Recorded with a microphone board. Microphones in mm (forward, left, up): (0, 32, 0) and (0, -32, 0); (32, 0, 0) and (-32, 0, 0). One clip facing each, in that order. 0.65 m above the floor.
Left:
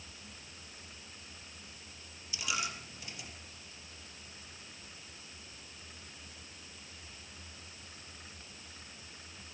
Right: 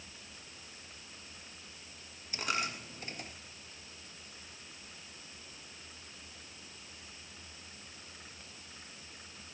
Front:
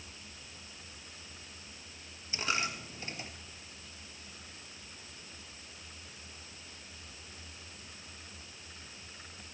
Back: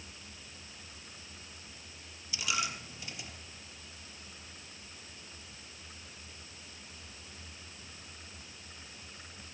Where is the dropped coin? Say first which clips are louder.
Right 2 dB, front 1 dB; 50° right, 3 m.